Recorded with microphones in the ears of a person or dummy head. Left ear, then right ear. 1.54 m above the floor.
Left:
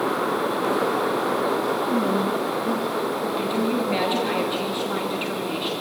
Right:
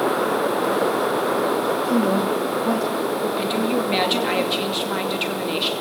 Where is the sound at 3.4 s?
25° right (ahead or behind), 2.5 m.